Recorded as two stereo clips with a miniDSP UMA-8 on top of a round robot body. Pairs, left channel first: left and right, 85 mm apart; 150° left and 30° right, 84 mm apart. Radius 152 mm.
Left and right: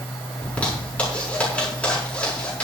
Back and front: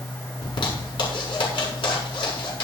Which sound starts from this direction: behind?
A zipper, at 0.4 s.